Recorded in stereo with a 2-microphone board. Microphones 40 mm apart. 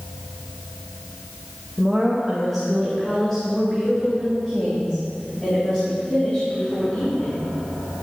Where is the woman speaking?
15° right (ahead or behind), 2.5 m; by 7.4 s 30° left (ahead or behind), 5.5 m.